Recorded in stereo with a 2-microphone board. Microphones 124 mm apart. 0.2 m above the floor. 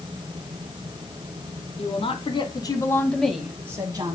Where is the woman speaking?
55° left (ahead or behind), 1.9 m; by 4.2 s 40° right (ahead or behind), 1.4 m.